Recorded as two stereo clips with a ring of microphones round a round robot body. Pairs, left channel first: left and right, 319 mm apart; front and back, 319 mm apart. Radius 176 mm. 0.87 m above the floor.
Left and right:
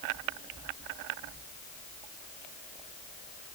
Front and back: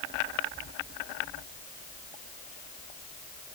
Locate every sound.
Only background noise.